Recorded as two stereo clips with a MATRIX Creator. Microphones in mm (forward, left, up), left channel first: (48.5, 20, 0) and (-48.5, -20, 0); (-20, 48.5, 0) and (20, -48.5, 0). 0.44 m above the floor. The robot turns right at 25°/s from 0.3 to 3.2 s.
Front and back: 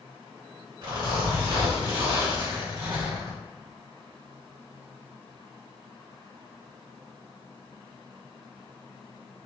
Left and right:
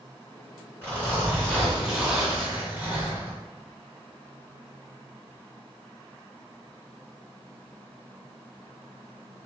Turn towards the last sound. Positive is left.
turn(degrees=-120)